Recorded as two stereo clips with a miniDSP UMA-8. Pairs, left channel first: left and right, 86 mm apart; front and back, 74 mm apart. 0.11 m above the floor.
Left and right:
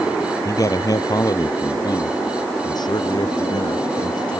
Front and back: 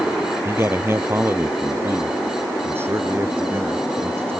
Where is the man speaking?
130° left; by 4.4 s 120° left.